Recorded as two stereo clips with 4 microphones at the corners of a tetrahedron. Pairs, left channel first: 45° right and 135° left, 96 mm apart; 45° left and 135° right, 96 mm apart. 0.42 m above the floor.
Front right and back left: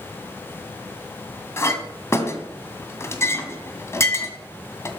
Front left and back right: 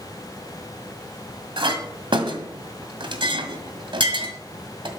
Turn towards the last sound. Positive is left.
turn(degrees=-105)